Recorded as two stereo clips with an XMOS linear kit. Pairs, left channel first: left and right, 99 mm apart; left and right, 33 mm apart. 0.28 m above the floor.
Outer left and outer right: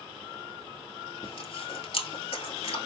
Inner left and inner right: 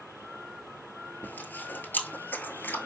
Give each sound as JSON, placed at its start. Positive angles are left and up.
{"t": 1.2, "sound": "chewing", "side_deg": 85, "distance_m": 1.0}